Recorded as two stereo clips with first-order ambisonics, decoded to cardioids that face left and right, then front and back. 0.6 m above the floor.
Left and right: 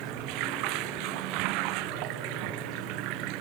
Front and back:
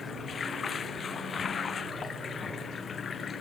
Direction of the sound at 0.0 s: 70° right.